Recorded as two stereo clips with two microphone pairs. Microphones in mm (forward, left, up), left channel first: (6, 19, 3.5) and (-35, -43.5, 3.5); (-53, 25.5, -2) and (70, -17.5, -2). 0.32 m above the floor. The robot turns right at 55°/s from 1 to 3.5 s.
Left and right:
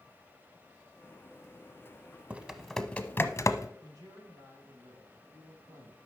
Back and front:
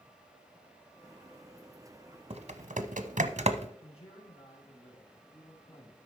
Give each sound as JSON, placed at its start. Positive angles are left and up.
{"t": 2.3, "sound": "typing on a keyboard", "azimuth_deg": -55, "distance_m": 0.7}
{"t": 3.8, "sound": "a man speaking", "azimuth_deg": -160, "distance_m": 3.0}